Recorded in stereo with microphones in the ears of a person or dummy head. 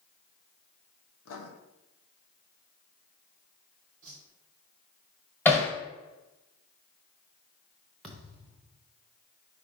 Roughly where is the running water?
No running water in this recording.